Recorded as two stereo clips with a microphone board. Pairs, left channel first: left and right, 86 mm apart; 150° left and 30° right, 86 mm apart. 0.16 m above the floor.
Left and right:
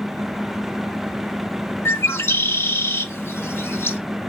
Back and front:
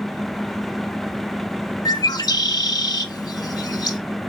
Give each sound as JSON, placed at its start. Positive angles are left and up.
{"t": 1.9, "sound": "a bird", "azimuth_deg": 140, "distance_m": 0.6}